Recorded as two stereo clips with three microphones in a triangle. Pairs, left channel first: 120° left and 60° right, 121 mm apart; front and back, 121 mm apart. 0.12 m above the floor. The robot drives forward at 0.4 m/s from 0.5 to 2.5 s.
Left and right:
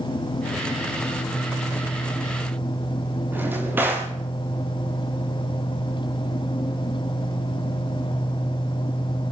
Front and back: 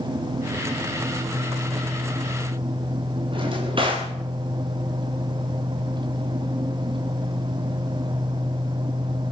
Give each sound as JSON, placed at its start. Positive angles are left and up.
{"t": 3.3, "sound": "a drawer", "azimuth_deg": -135, "distance_m": 10.0}